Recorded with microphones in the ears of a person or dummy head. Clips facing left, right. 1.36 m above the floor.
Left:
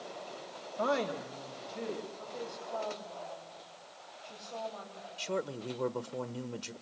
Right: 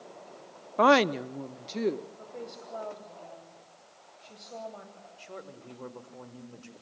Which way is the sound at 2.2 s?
20° right (ahead or behind).